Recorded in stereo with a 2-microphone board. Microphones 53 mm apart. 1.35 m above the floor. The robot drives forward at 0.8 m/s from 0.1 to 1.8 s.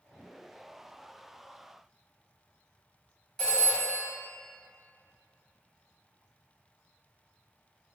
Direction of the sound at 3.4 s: 10° left (ahead or behind).